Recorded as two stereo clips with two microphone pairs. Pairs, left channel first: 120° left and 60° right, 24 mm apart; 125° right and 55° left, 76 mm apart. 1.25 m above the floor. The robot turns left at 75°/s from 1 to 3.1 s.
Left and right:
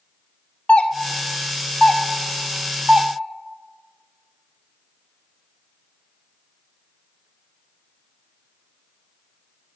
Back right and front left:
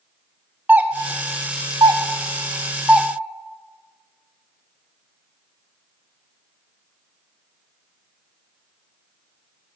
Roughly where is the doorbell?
Behind left.